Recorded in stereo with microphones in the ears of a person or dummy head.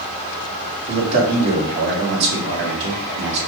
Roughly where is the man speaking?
Right.